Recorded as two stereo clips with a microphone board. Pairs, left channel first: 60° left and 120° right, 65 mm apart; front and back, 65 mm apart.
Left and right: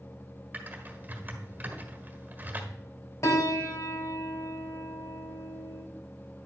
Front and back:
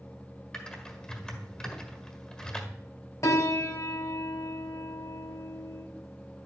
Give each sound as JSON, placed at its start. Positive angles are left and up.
{"t": 0.5, "sound": "typing on a keyboard", "azimuth_deg": -70, "distance_m": 1.6}
{"t": 3.2, "sound": "a piano", "azimuth_deg": 30, "distance_m": 1.8}